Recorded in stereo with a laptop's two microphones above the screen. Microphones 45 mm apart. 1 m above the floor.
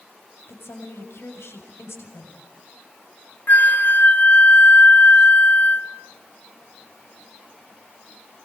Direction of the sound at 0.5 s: 80° left.